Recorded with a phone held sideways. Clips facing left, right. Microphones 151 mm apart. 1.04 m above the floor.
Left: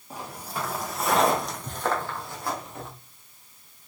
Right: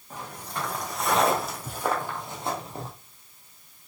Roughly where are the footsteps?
Centre.